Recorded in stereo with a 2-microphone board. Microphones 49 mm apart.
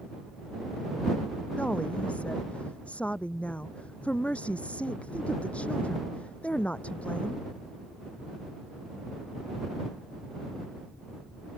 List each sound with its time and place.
1.6 s a woman speaking: 25° left (ahead or behind)